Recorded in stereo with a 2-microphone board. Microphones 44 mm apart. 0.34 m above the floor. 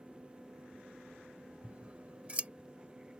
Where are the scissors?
30° right (ahead or behind).